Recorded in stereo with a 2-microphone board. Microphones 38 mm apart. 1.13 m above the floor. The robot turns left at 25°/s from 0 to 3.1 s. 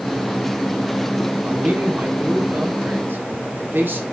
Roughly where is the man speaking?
Ahead right.